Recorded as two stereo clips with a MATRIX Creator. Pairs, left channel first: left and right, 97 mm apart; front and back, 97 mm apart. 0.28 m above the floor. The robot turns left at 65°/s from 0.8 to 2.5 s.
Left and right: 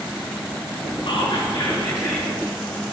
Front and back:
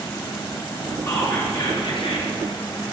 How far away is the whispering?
About 3.5 m.